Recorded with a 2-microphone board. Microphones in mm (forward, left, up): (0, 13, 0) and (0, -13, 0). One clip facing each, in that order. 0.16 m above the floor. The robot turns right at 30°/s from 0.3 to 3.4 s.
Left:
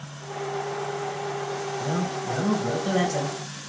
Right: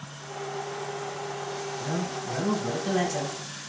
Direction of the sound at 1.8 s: 20° left (ahead or behind).